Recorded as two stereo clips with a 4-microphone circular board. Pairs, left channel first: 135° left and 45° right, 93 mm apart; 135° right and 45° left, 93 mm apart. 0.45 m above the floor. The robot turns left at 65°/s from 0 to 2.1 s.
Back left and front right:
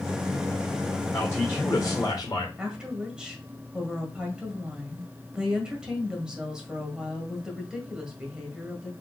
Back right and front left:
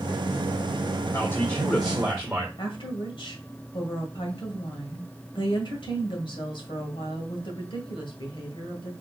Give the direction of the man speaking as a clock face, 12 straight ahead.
5 o'clock.